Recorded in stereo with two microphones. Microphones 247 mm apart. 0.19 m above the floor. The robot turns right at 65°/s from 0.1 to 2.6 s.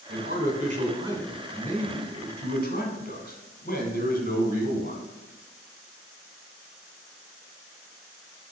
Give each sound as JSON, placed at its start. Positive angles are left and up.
{"t": 0.1, "sound": "a man speaking", "azimuth_deg": -90, "distance_m": 1.6}